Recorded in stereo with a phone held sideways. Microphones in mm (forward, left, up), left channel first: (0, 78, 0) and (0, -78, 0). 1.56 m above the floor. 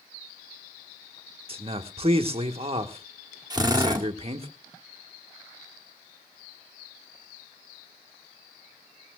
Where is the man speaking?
40° right (ahead or behind), 1.3 m.